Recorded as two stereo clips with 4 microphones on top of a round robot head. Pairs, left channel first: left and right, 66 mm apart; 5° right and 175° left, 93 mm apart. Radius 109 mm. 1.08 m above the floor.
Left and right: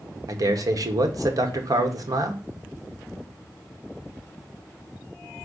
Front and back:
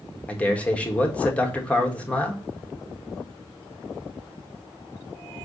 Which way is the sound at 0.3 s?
80° right.